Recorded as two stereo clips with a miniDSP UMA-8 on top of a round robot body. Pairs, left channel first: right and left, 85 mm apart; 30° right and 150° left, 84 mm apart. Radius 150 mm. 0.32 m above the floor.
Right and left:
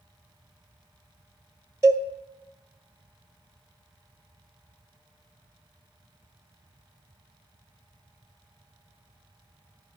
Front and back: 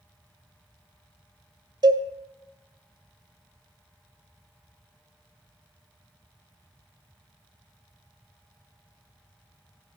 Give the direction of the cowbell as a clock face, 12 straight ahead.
8 o'clock.